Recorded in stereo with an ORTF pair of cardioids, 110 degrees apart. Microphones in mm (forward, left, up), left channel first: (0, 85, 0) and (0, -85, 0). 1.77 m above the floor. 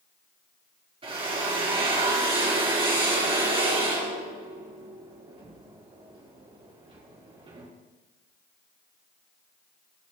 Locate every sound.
1.0 s a drill: 30° right, 3.5 m